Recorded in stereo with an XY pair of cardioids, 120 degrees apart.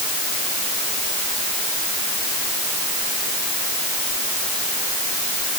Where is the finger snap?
I don't hear a finger snap.